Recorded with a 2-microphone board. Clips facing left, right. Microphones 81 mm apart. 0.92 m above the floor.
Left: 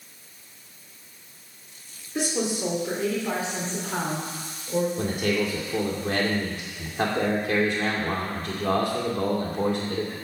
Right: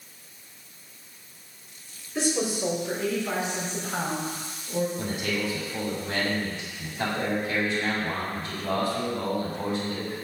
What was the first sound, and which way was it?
A woman speaking, 20° left (ahead or behind).